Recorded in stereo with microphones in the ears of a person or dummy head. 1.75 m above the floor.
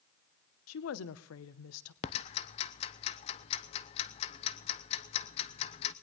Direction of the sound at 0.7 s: 85° left.